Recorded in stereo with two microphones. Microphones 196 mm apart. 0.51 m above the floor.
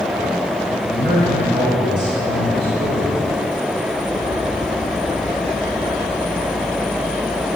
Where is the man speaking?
20° right (ahead or behind), 3 m; by 3.2 s 25° right (ahead or behind), 2.0 m.